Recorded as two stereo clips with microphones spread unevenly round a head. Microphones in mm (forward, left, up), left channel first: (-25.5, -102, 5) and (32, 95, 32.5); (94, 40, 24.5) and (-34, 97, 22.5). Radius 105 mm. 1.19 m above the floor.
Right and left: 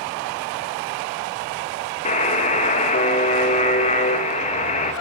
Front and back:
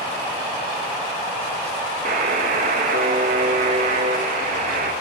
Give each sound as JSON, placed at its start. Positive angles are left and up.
{"t": 2.0, "sound": "a buzzer", "azimuth_deg": -160, "distance_m": 1.9}